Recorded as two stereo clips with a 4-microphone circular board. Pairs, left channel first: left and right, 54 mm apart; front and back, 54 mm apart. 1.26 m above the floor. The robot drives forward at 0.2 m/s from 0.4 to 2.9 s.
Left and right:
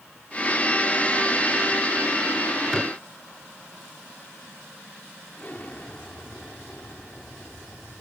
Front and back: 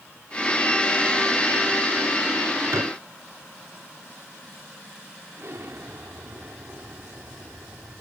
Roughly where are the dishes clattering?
Behind.